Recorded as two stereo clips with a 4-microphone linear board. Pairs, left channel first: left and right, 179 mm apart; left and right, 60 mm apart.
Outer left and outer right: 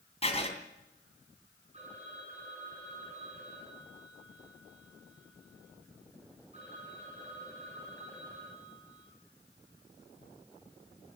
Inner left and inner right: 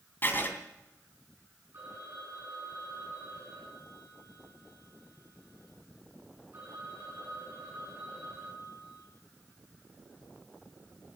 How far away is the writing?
About 2.5 m.